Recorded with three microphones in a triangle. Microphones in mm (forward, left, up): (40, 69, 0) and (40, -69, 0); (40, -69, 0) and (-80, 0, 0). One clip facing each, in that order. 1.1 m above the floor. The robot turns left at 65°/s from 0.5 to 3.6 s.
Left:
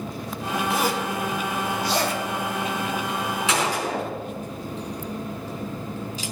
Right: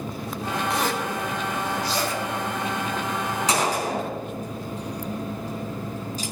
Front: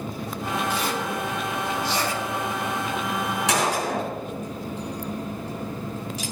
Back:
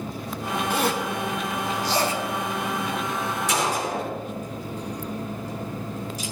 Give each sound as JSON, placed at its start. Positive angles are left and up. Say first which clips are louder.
{"t": 0.7, "sound": "a zipper", "louder": "left 2 dB, back 2 dB", "azimuth_deg": 175, "distance_m": 2.0}
{"t": 3.5, "sound": "a gunshot", "louder": "right 1 dB, front 2 dB", "azimuth_deg": -40, "distance_m": 4.5}